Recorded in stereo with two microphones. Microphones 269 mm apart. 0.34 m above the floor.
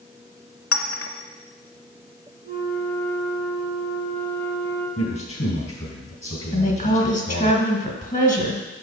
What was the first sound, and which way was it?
A clink, 55° left (ahead or behind).